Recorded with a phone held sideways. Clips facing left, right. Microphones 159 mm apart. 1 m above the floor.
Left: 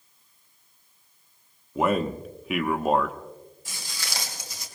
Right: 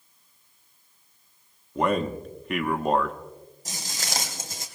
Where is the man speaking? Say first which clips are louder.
Left 1 dB; 5° left (ahead or behind), 1.0 m.